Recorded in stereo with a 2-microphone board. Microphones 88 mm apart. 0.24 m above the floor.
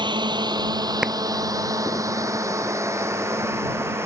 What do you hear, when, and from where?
0.0 s a drone: 60° right (ahead or behind); by 4.1 s 30° right (ahead or behind)
1.0 s a clap: 10° right (ahead or behind)